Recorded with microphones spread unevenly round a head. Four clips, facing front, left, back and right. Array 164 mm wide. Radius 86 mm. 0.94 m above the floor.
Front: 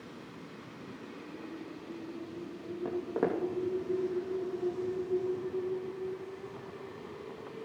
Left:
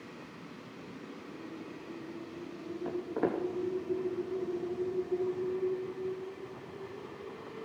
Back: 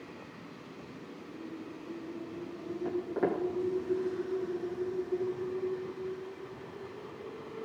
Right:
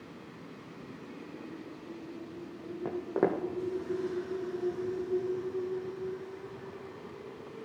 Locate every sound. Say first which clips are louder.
2.9 s footsteps: right 3 dB, even; 75° right, 2.5 m